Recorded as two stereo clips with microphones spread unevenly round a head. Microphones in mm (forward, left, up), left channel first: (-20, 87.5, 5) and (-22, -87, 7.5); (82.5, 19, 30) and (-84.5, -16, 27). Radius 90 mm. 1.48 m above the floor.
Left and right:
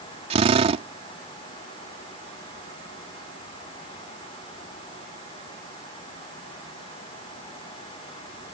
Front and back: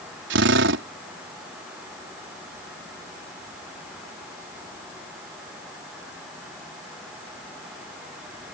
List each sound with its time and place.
0.3 s a drill: 145° right